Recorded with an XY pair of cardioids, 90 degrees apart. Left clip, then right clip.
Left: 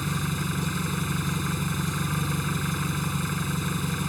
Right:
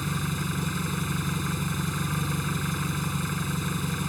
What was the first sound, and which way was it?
An engine running, 10° left.